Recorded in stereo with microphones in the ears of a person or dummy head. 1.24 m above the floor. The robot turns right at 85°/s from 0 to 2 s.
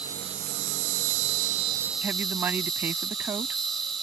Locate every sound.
0.0 s an insect: 170° right; by 4.0 s straight ahead
2.0 s a woman speaking: 15° right (ahead or behind)